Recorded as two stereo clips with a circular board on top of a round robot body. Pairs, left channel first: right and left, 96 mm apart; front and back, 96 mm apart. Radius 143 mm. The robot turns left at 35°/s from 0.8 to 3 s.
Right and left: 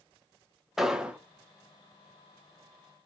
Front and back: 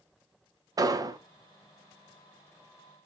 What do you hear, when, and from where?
0.8 s an explosion: 175° left, 0.7 m; by 1.2 s 160° left, 0.7 m